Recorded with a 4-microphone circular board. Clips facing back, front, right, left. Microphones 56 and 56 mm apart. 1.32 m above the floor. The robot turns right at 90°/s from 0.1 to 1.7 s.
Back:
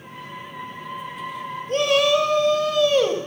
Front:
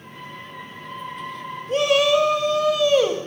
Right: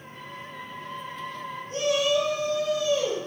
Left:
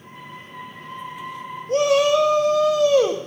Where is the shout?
85° left, 1.8 m.